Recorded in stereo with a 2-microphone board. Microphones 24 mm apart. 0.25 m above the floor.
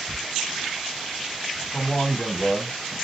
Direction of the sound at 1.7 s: 40° left (ahead or behind).